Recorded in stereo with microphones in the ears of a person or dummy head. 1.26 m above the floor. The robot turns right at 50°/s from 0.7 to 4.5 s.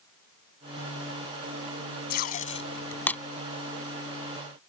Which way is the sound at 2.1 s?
60° left (ahead or behind).